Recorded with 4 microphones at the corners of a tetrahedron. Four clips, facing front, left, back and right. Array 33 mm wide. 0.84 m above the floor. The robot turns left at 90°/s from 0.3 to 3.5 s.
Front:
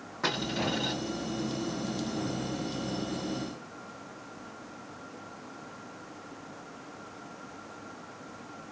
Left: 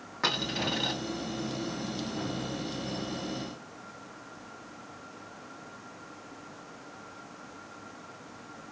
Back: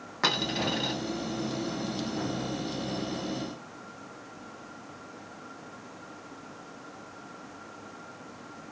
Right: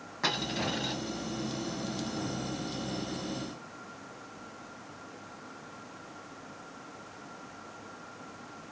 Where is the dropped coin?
165° left, 2.5 m; by 1.0 s 105° left, 2.5 m.